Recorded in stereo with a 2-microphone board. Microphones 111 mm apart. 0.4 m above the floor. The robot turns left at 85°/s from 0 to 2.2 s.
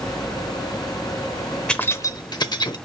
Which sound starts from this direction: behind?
Keys jangling, at 1.7 s.